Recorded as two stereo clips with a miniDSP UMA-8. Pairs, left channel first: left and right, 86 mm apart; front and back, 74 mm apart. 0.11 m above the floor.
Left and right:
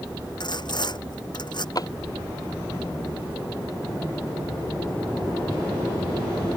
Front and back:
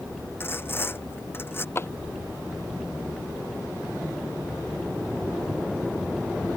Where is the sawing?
60° left.